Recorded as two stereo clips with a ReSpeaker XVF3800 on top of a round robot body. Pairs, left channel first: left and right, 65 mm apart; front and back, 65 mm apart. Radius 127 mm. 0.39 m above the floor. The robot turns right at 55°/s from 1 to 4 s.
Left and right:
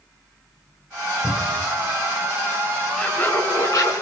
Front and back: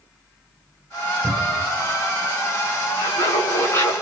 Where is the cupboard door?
140° left, 3 m; by 1.7 s 165° left, 3 m.